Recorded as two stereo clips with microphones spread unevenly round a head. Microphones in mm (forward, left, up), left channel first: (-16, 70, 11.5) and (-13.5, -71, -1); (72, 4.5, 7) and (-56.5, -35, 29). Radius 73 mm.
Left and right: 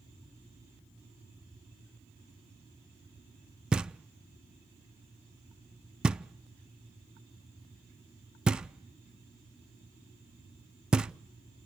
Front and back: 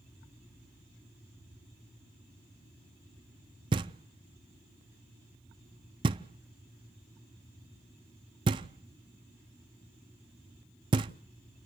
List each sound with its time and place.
3.7 s knocking: 175° right, 0.5 m